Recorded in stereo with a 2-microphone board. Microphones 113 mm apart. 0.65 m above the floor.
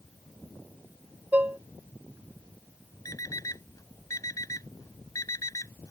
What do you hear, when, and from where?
1.3 s dishes clattering: 15° right (ahead or behind)
3.0 s an alarm clock: 30° left (ahead or behind)